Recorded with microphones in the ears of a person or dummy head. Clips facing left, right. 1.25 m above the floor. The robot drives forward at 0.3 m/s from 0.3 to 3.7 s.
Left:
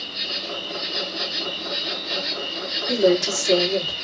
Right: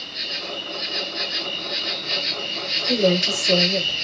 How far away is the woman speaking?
About 2.5 m.